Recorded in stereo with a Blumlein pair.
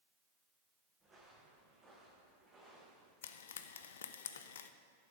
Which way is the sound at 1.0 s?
10° right.